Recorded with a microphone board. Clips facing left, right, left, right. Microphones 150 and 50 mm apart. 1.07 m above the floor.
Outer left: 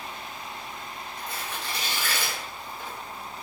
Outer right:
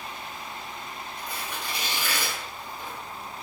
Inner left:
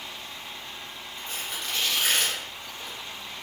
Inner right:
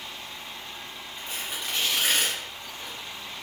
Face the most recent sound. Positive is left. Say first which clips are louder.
# even, even
turn(degrees=-15)  # may be behind; listen again after turning